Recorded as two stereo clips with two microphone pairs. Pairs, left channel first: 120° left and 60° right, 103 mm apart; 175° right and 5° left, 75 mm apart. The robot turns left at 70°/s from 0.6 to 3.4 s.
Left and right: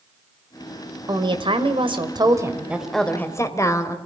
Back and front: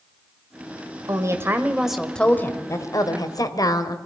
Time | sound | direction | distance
1.1 | a woman speaking | 20° right | 1.9 m